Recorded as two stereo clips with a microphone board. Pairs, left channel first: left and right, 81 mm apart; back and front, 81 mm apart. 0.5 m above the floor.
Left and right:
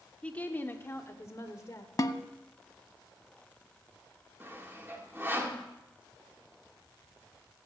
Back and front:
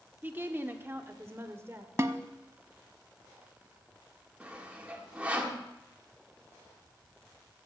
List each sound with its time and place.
0.2 s a woman speaking: 35° left, 0.9 m; by 1.9 s 50° left, 1.4 m
2.0 s a snare drum: 50° left, 0.6 m
4.4 s sawing: 60° right, 1.5 m